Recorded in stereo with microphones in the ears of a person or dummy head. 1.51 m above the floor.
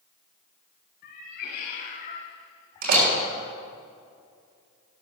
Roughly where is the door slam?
Right.